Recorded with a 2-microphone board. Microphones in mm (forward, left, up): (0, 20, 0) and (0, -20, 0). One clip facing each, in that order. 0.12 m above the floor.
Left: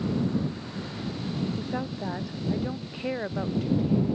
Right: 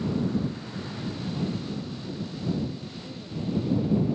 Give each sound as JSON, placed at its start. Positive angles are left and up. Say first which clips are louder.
{"t": 1.6, "sound": "a woman speaking", "louder": "left 3 dB", "side_deg": 70}